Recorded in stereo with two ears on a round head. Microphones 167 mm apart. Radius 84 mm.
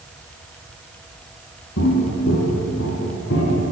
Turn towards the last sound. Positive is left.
turn(degrees=60)  # may be behind; listen again after turning